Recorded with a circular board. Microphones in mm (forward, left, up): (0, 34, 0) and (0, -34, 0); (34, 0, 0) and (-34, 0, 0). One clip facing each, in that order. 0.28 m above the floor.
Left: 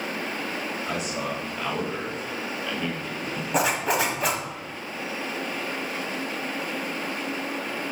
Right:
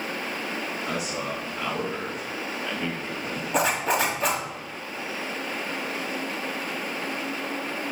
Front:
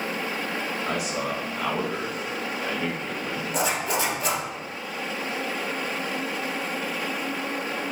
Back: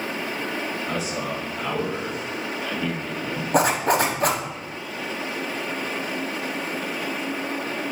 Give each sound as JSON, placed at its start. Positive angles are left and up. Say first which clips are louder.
{"t": 0.9, "sound": "a man speaking", "louder": "left 1 dB, even", "azimuth_deg": -5, "distance_m": 4.0}
{"t": 3.5, "sound": "a zipper", "louder": "even, back 7 dB", "azimuth_deg": 180, "distance_m": 1.5}